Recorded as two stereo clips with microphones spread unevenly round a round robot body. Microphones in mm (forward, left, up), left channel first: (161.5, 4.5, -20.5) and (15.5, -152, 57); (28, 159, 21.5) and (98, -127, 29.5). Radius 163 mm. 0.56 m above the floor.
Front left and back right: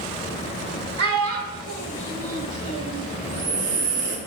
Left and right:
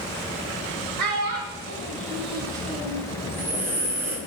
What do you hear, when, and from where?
1.0 s a child speaking: 115° right, 3 m; by 3.0 s straight behind, 1.6 m
3.2 s breathing: 160° right, 1.9 m